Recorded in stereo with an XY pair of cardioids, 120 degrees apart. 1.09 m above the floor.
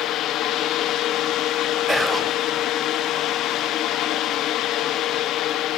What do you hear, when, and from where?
0.0 s a fan: 65° left, 1.0 m
1.9 s whispering: 10° right, 0.6 m